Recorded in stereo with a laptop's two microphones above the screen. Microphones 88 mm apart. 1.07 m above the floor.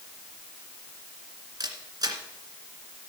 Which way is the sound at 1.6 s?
45° right (ahead or behind).